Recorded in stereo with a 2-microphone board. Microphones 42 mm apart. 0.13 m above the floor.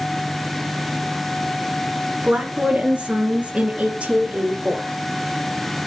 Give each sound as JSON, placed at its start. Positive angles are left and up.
{"t": 2.2, "sound": "a woman speaking", "side_deg": -30, "distance_m": 2.5}